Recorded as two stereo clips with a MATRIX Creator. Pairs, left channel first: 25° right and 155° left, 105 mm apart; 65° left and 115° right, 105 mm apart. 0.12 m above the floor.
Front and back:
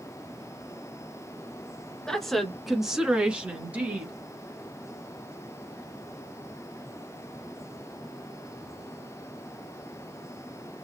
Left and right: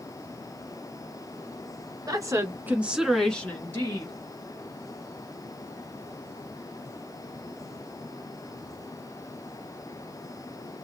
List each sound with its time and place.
2.1 s a woman speaking: 105° right, 1.3 m; by 4.1 s 100° left, 1.3 m